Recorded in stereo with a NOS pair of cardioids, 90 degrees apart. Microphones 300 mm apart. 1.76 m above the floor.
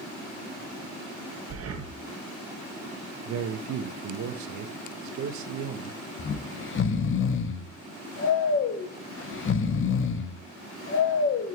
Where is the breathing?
50° right, 1.3 m.